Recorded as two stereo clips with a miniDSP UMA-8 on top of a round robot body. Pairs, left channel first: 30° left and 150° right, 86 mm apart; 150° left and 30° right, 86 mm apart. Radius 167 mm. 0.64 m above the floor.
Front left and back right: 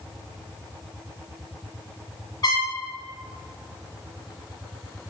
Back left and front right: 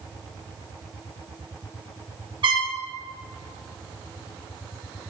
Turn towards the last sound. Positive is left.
turn(degrees=-15)